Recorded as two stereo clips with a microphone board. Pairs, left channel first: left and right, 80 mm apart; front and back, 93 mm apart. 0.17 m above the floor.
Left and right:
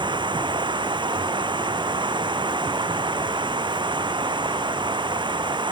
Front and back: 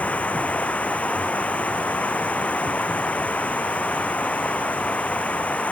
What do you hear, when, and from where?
0.0 s running water: 75° right